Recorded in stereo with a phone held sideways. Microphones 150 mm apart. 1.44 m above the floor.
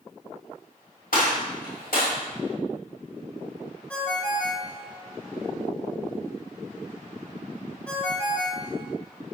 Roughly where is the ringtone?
Centre.